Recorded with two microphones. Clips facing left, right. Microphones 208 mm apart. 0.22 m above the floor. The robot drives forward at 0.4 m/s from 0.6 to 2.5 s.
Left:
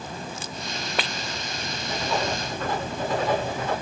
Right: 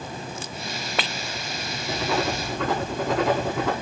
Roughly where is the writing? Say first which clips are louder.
Right 2 dB; right.